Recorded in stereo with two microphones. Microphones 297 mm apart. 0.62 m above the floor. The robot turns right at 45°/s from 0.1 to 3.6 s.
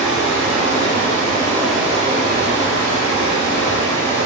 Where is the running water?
110° left, 1.1 m; by 4.3 s 95° right, 1.1 m.